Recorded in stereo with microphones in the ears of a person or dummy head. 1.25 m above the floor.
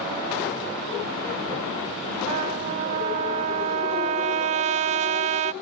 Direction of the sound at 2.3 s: 40° right (ahead or behind).